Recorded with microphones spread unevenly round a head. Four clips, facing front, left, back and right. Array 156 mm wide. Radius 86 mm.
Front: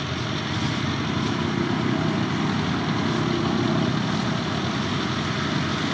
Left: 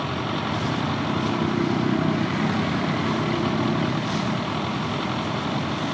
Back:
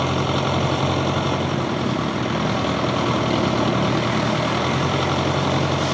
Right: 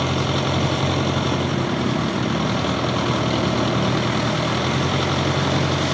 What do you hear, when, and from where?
0.0 s an engine running: 140° right